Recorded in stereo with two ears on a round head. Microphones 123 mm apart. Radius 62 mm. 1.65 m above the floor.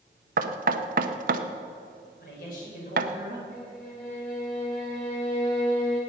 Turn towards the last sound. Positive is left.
turn(degrees=70)  # may be behind; listen again after turning